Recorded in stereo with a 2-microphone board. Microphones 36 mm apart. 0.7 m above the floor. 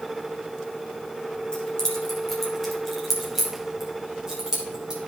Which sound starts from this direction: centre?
Keys jangling, at 1.5 s.